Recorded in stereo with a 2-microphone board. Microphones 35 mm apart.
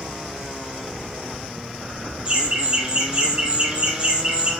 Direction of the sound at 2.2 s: 25° right (ahead or behind).